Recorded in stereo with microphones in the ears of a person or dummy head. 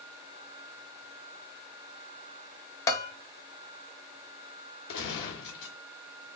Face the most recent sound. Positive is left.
turn(degrees=65)  # may be behind; listen again after turning